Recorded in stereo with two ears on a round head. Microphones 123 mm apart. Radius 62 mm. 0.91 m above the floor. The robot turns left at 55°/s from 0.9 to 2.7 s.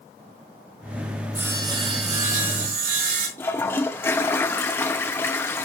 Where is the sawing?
10° right, 4.5 m; by 3.3 s 85° right, 4.5 m.